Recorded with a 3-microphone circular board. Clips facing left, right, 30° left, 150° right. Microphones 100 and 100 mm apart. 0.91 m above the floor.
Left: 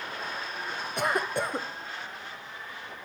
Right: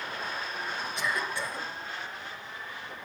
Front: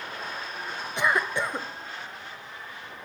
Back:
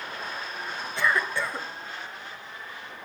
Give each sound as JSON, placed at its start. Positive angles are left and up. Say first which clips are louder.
{"t": 1.0, "sound": "a cough", "louder": "left 6 dB, front 1 dB", "azimuth_deg": 95, "distance_m": 0.5}